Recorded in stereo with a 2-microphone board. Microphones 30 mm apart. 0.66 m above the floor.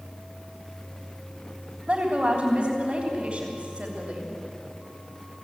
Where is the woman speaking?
25° right (ahead or behind), 3 m.